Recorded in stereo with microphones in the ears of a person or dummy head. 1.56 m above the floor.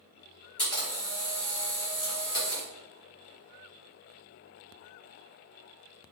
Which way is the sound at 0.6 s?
10° left (ahead or behind).